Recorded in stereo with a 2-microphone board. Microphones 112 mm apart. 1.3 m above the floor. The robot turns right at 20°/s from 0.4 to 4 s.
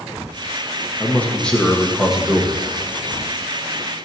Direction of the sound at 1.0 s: 160° left.